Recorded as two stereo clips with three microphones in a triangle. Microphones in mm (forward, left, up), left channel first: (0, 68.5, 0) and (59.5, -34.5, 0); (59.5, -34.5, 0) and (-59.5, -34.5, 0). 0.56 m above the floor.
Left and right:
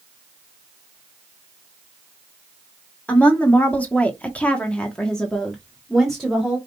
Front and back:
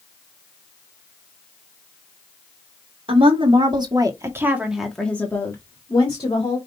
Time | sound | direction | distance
3.1 | a woman speaking | 165° right | 1.7 m